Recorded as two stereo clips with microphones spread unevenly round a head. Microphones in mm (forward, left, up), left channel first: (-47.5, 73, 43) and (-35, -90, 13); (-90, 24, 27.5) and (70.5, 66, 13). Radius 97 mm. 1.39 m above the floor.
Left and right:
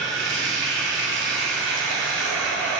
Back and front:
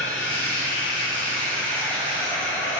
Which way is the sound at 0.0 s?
80° right.